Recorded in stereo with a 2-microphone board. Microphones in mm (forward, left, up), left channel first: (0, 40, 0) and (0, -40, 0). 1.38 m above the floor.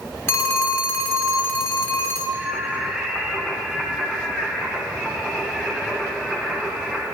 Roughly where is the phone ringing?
Left.